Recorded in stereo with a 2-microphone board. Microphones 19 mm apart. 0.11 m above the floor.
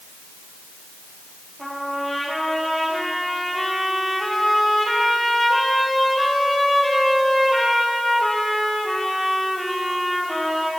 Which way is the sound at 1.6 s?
Centre (ahead or behind).